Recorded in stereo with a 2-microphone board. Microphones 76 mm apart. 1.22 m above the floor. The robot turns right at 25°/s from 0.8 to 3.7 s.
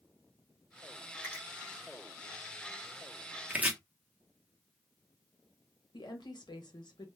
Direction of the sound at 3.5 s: 25° right (ahead or behind).